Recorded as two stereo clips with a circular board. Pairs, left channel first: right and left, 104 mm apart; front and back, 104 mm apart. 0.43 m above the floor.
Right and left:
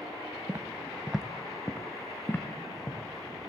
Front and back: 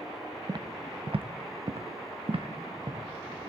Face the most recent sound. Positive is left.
turn(degrees=-150)